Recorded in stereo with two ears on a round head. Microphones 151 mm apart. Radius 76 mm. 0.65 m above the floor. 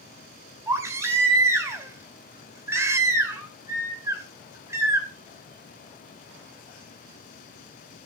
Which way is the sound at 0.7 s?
15° right (ahead or behind).